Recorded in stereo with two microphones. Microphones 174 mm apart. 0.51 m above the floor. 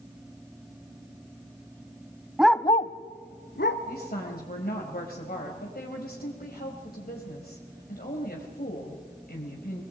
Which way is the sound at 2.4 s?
5° right (ahead or behind).